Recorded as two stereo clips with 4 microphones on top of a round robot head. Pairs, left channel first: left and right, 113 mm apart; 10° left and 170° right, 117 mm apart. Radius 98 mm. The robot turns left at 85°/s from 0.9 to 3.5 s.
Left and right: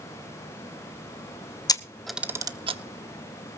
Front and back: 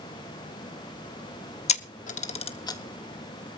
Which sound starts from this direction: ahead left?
A camera shutter, at 1.7 s.